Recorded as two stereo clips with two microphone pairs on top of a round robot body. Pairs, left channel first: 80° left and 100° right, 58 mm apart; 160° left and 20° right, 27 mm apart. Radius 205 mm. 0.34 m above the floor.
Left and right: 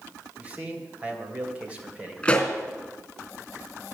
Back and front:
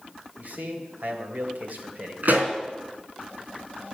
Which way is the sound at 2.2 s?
5° left.